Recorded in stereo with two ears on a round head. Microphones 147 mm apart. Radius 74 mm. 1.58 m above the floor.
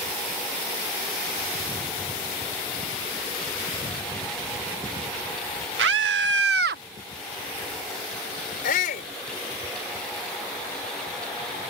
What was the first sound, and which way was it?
A scream, 80° right.